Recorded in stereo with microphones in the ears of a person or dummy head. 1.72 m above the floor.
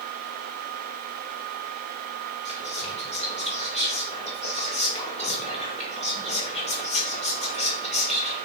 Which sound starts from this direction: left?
Whispering, at 2.5 s.